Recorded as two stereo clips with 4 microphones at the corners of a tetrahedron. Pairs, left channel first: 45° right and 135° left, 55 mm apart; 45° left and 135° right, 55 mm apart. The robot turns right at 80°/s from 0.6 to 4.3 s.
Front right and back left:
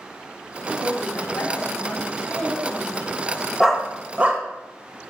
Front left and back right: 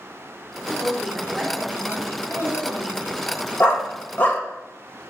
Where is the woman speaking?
125° right, 2.5 m; by 3.4 s 90° left, 2.5 m.